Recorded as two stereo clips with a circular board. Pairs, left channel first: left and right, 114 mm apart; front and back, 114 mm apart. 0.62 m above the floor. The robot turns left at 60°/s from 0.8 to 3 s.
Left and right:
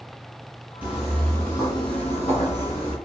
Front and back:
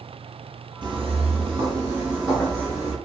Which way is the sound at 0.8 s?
160° right.